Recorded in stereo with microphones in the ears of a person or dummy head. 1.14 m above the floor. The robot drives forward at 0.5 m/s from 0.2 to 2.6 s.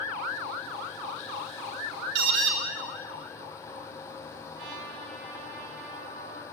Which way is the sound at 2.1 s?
70° right (ahead or behind).